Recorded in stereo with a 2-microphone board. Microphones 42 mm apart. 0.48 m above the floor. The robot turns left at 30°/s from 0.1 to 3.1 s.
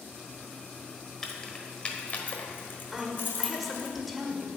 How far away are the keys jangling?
About 1.3 m.